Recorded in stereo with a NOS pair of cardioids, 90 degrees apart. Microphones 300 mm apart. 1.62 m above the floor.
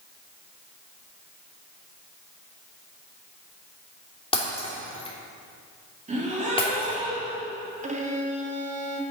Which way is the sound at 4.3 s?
20° left.